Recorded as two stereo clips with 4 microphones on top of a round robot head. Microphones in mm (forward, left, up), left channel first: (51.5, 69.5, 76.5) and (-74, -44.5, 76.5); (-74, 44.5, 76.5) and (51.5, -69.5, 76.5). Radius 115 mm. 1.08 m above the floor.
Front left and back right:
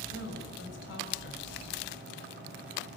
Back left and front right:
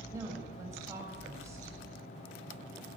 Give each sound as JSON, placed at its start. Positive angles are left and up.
{"t": 0.1, "sound": "a woman speaking", "azimuth_deg": 30, "distance_m": 6.5}